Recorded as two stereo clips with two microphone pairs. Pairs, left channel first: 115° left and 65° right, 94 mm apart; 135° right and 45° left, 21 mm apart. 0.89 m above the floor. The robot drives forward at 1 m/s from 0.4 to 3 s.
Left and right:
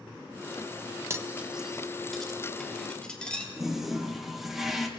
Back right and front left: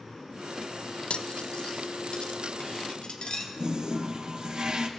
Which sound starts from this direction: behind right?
Cutlery clinking, at 1.1 s.